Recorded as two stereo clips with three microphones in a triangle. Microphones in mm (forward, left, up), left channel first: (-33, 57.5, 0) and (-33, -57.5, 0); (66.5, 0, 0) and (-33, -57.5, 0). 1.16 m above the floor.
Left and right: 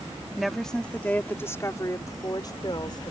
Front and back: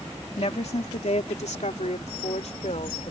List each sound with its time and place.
0.4 s a woman speaking: straight ahead; by 3.1 s 45° left